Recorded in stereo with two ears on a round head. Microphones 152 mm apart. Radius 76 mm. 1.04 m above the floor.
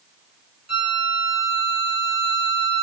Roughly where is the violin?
Right.